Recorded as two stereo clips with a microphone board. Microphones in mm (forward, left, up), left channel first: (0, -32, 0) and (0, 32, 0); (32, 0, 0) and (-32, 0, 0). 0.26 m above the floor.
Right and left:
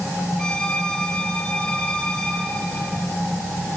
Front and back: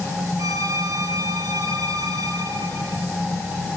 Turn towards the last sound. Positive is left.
turn(degrees=-165)